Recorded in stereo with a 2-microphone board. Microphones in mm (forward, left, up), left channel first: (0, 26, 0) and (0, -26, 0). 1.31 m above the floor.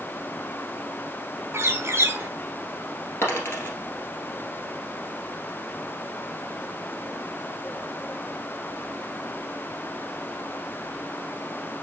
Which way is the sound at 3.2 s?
45° left (ahead or behind).